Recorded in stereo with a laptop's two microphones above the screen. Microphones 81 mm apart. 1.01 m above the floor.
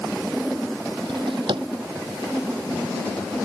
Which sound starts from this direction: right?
A drawer, at 1.1 s.